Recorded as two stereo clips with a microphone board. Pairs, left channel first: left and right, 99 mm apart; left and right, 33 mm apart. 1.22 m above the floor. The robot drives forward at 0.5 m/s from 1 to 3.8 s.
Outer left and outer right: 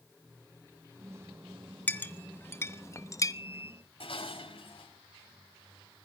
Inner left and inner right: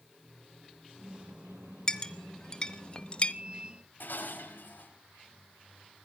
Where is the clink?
20° left (ahead or behind), 1.3 m; by 3.3 s 35° left (ahead or behind), 0.7 m.